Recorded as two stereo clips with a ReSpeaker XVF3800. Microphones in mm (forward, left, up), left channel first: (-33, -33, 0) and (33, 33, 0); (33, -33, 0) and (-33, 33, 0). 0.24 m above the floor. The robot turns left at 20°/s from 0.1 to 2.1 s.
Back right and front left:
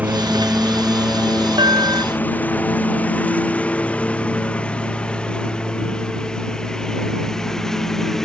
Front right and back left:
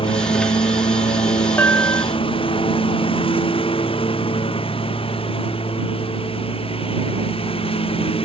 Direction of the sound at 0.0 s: 30° right.